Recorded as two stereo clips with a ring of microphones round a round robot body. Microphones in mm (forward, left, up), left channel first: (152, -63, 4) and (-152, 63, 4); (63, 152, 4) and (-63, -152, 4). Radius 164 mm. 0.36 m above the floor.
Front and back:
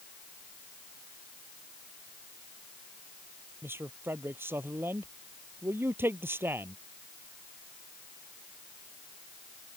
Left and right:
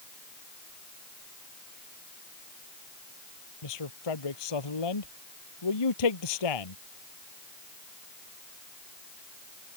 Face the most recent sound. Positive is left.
turn(degrees=75)